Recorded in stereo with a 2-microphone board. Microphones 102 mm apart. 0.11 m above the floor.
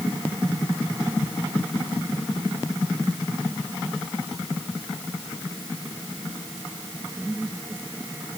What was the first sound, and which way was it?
Only background noise.